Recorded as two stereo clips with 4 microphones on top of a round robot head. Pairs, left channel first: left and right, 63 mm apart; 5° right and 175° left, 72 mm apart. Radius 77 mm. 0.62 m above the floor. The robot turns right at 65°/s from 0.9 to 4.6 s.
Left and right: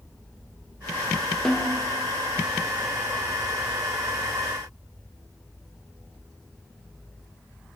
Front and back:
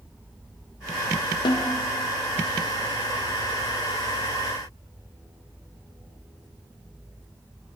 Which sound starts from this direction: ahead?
A snare drum, at 1.4 s.